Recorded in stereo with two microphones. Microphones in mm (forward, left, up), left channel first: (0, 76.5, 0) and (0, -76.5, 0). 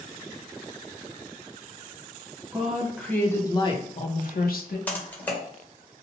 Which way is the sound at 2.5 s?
5° right (ahead or behind).